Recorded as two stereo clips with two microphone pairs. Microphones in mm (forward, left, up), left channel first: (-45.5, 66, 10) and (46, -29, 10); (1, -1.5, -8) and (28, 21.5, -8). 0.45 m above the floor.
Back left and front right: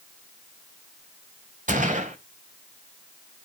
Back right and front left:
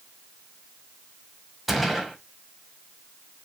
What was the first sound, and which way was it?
A gunshot, 45° right.